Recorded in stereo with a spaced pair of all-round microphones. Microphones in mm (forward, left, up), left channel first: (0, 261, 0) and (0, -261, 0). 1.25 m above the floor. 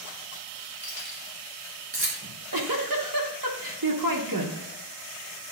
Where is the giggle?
40° right (ahead or behind), 1.0 m.